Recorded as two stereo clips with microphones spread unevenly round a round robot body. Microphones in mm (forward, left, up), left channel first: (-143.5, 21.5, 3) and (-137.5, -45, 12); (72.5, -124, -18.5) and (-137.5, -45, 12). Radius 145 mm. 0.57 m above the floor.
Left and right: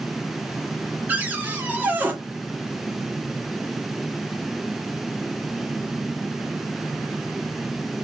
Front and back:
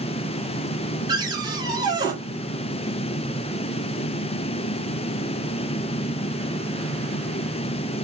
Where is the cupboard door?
135° right, 1.3 m.